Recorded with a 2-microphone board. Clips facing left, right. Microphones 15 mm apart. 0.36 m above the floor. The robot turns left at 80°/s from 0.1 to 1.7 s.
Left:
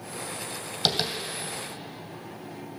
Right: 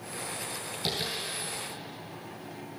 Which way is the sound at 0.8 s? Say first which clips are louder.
Left 7 dB; 45° left (ahead or behind).